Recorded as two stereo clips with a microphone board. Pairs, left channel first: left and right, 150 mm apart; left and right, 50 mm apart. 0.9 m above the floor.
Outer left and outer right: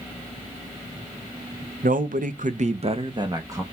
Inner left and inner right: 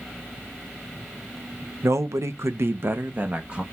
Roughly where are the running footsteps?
I don't hear running footsteps.